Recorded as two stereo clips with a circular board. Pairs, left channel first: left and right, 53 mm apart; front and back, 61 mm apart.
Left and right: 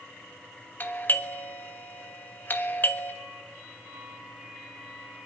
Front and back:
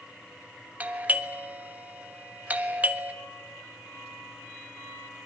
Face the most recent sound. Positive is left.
turn(degrees=125)